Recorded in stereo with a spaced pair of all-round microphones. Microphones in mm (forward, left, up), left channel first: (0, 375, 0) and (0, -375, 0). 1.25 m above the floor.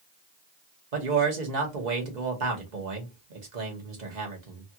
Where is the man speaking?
75° right (ahead or behind), 1.4 m.